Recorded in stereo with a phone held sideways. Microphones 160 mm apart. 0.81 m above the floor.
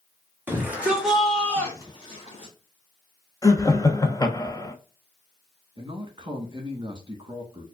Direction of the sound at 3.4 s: 25° left (ahead or behind).